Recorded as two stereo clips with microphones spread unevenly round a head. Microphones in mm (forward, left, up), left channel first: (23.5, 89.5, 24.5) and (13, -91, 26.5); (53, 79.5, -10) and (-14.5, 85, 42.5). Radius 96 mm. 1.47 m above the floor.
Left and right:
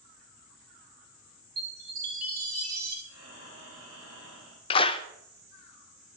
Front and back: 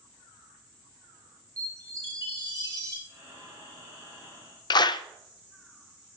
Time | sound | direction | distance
1.6 | a chime | 135° right | 3.5 m
3.1 | breathing | 85° right | 6.5 m
4.7 | a clap | 45° left | 0.6 m